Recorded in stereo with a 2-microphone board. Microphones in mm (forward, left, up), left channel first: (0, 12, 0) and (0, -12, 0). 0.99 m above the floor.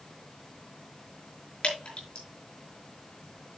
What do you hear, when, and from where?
1.6 s dripping: 50° left (ahead or behind), 5.5 m